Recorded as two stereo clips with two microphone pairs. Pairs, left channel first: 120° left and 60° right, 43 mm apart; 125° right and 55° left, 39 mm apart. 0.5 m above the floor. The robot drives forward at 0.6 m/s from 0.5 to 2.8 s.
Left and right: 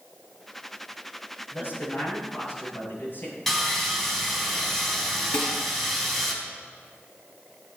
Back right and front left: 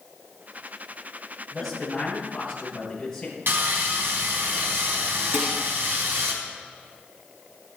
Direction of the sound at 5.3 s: 55° left.